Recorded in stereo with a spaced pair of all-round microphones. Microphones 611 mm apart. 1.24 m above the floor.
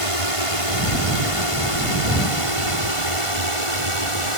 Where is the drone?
60° left (ahead or behind); by 4.4 s 55° left (ahead or behind).